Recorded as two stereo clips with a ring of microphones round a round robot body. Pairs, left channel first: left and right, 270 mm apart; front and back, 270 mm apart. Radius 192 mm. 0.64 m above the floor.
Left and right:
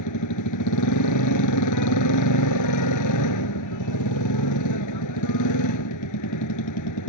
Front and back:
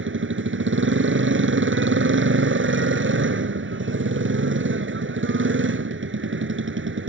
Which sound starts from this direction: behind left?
A motorcycle, at 0.0 s.